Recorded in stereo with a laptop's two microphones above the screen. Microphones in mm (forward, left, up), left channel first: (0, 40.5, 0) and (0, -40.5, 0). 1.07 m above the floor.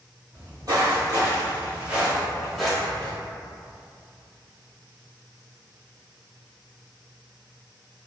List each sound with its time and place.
0.3 s footsteps: 55° right (ahead or behind), 2.0 m; by 3.1 s 20° left (ahead or behind), 1.4 m